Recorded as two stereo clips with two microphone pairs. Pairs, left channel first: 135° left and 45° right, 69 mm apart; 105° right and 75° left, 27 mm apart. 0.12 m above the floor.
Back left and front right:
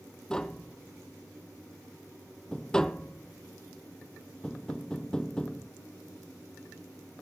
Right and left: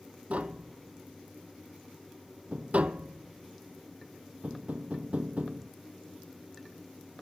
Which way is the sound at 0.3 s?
55° left.